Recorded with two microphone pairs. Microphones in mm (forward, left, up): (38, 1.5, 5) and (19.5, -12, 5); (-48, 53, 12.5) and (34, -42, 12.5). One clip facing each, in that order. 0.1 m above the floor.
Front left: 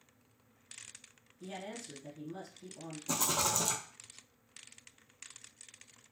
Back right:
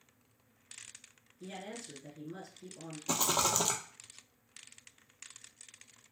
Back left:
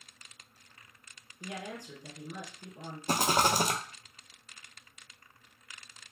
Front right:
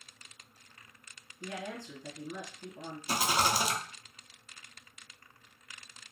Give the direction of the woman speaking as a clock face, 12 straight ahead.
6 o'clock.